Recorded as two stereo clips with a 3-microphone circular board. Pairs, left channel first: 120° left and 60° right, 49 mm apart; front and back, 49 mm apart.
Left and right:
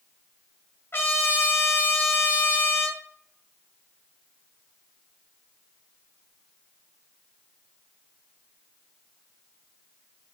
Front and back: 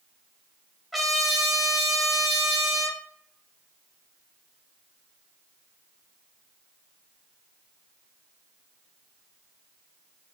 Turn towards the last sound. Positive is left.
turn(degrees=90)